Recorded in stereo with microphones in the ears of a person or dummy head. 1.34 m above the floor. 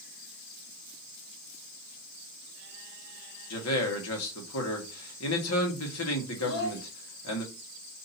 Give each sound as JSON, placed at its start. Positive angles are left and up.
{"t": 3.5, "sound": "a man speaking", "side_deg": 75, "distance_m": 1.4}
{"t": 6.4, "sound": "a child speaking", "side_deg": 60, "distance_m": 1.6}